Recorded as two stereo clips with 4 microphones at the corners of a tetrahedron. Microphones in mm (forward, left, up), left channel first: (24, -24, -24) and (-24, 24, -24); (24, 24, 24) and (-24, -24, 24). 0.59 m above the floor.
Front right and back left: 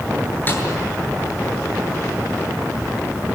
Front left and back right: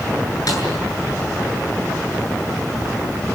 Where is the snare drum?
15° left, 8 m.